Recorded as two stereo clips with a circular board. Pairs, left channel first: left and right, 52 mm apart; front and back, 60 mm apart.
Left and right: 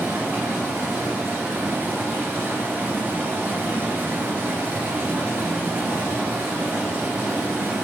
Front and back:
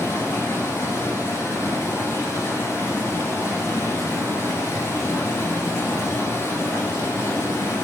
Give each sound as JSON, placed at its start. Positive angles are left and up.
{"t": 0.0, "sound": "running water", "azimuth_deg": -40, "distance_m": 1.8}